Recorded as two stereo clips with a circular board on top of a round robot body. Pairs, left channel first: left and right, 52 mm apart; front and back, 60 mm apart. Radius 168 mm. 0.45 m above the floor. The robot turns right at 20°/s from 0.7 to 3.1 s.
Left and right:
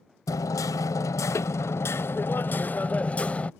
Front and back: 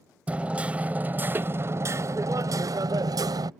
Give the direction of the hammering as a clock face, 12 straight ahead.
8 o'clock.